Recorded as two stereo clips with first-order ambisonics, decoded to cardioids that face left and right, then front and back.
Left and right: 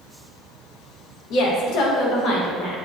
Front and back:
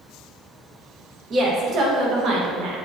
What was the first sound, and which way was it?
A woman speaking, 120° left.